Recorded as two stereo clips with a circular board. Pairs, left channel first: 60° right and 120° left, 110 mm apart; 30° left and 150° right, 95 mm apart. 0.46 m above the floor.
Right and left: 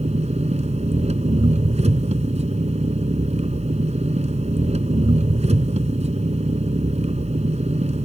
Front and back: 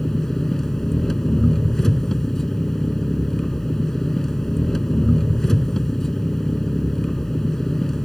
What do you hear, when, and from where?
0.0 s an engine running: 115° left